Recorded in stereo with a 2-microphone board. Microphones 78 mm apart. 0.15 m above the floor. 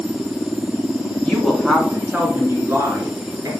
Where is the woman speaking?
10° left (ahead or behind), 1.5 m; by 3.5 s 45° right (ahead or behind), 2.5 m.